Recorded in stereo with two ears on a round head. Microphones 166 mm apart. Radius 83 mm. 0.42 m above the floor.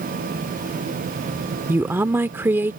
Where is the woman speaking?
10° right (ahead or behind).